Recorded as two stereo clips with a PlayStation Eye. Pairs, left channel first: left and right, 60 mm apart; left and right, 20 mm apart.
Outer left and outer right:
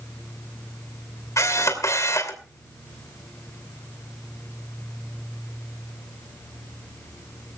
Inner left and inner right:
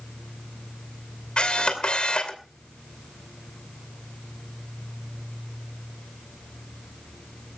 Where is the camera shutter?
60° left (ahead or behind), 2.5 m.